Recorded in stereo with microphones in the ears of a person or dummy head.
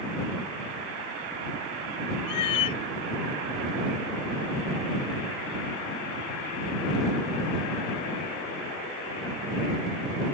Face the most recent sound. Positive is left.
turn(degrees=25)  # may be behind; listen again after turning